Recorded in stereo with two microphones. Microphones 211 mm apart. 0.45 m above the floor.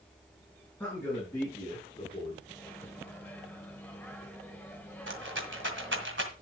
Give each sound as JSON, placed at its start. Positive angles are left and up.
{"t": 0.8, "sound": "a man speaking", "side_deg": 10, "distance_m": 7.0}
{"t": 2.5, "sound": "a microwave", "side_deg": 10, "distance_m": 1.9}
{"t": 5.1, "sound": "a rattle", "side_deg": -65, "distance_m": 1.8}